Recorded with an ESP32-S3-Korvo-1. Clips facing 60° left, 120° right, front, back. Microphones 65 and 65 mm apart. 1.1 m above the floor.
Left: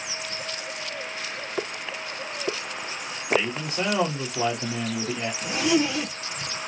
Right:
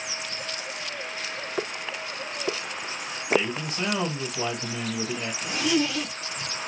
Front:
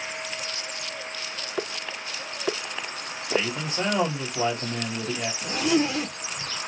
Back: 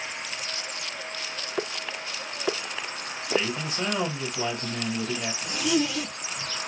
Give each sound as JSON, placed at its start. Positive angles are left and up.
{"t": 3.3, "sound": "a man speaking", "azimuth_deg": 25, "distance_m": 2.5}
{"t": 5.4, "sound": "a zipper", "azimuth_deg": 10, "distance_m": 0.7}